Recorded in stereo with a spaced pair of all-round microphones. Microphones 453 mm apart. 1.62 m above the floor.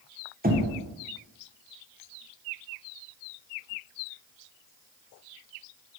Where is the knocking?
20° right (ahead or behind), 0.9 m.